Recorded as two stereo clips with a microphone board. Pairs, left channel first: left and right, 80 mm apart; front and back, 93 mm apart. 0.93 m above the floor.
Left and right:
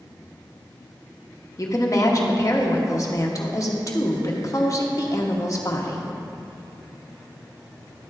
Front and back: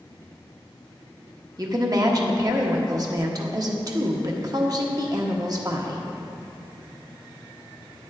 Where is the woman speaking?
135° left, 0.8 m.